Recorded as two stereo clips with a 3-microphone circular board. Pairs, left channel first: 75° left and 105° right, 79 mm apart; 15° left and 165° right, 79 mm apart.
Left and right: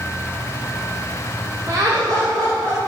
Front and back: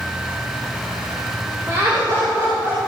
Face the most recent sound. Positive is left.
turn(degrees=-135)